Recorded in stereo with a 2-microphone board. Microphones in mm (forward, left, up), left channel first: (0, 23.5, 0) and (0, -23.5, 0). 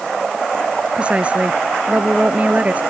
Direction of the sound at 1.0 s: 25° right (ahead or behind).